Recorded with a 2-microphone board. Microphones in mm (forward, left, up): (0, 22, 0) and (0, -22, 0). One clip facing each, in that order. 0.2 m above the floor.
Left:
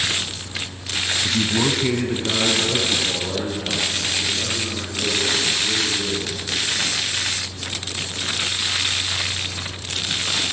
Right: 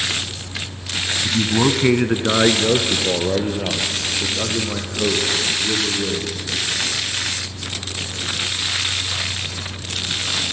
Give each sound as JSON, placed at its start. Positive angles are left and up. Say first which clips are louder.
{"t": 1.2, "sound": "a man speaking", "louder": "right 4 dB", "side_deg": 5, "distance_m": 1.0}